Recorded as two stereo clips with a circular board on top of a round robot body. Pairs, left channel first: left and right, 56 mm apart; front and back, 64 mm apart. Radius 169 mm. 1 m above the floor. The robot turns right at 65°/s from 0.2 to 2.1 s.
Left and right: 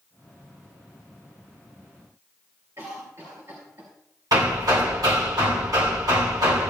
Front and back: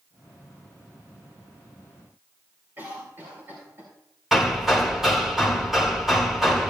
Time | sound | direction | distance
2.8 | a cough | 125° right | 3.5 m
4.3 | hammering | 95° right | 1.4 m